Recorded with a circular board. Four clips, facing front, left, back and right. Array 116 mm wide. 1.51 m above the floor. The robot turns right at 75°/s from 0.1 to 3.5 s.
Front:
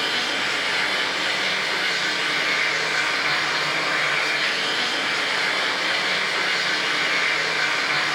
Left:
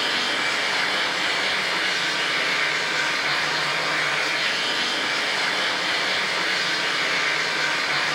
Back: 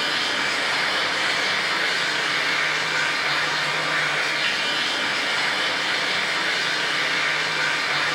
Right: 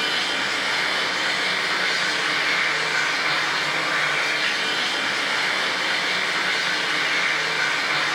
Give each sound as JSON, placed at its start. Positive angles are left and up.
{"t": 0.0, "sound": "running water", "azimuth_deg": 120, "distance_m": 1.1}